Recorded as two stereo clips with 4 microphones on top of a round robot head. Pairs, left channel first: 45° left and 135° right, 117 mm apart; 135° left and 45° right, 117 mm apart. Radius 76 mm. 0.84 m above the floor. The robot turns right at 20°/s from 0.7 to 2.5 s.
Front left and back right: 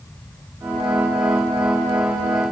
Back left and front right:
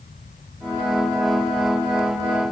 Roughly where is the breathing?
No breathing in this recording.